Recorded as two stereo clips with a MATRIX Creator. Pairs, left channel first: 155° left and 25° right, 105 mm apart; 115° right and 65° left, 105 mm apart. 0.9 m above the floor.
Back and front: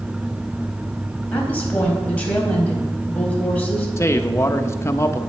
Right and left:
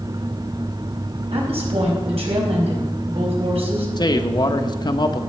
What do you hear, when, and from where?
1.3 s a woman speaking: 80° left, 4.5 m
4.0 s a man speaking: 145° right, 0.9 m